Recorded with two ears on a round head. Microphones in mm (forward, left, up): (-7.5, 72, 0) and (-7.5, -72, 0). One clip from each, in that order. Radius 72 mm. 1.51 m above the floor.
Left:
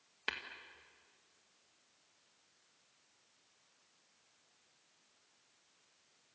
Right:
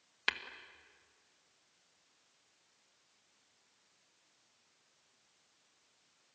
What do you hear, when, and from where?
0.3 s tapping: 40° right (ahead or behind), 1.8 m